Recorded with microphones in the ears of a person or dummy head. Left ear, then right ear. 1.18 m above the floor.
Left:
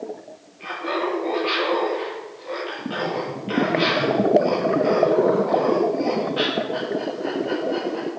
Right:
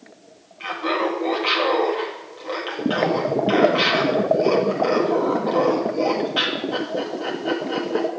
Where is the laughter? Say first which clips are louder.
Right 2 dB; 50° right (ahead or behind), 1.9 m.